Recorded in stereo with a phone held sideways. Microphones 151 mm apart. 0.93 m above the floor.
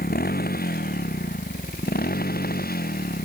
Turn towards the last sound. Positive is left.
turn(degrees=80)